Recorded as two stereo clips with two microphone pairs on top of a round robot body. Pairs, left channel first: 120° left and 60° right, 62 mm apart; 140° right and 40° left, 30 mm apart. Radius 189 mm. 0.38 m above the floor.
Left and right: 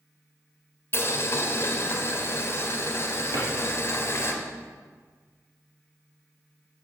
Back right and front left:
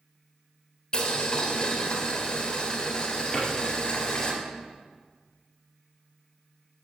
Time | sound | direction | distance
0.9 | boiling | 165° left | 1.6 m
3.3 | a drawer | 70° right | 3.5 m